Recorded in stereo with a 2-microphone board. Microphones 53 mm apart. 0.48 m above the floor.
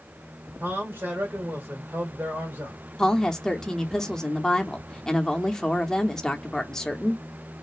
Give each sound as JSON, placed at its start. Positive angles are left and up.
{"t": 0.6, "sound": "a man speaking", "side_deg": -35, "distance_m": 1.5}
{"t": 3.0, "sound": "a woman speaking", "side_deg": 10, "distance_m": 0.7}